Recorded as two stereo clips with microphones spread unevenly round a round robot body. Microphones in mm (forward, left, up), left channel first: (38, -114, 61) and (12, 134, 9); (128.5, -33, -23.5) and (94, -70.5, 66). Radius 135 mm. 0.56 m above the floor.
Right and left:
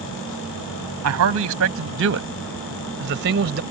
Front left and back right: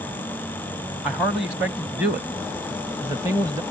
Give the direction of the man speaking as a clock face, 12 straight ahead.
8 o'clock.